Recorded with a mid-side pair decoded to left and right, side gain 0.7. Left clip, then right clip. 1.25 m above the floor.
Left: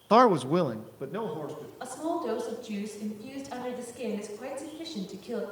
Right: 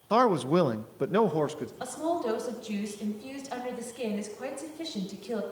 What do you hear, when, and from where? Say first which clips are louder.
0.1 s a man speaking: left 3 dB; 25° left, 0.7 m; by 1.7 s 55° right, 1.3 m
1.8 s a woman speaking: right 2 dB; 15° right, 5.5 m